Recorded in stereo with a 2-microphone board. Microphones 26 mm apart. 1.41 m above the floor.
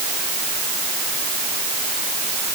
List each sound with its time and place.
Only background noise.